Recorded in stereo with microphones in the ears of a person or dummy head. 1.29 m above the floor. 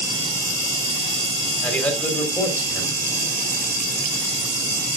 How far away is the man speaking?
About 3 m.